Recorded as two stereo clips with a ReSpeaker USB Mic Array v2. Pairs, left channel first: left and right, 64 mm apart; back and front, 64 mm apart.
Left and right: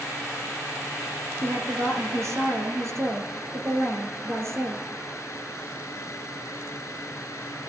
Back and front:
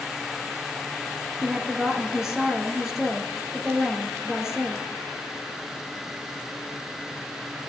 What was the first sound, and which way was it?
A woman speaking, 80° right.